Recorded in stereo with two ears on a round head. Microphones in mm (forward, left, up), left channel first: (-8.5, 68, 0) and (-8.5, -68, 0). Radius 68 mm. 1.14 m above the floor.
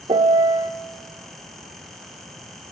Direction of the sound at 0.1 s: 30° right (ahead or behind).